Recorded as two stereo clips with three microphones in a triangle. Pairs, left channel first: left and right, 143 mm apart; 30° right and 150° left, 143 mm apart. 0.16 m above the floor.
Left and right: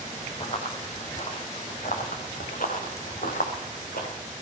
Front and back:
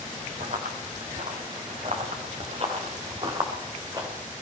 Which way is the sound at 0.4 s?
135° left.